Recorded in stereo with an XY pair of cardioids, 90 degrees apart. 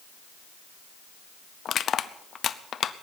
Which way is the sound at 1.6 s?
60° left.